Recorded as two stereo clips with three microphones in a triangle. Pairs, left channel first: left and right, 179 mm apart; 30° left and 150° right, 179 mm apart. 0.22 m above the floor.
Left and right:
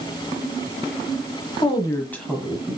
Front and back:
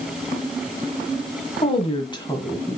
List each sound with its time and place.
1.6 s a woman speaking: 50° left, 1.4 m; by 2.8 s 35° right, 1.3 m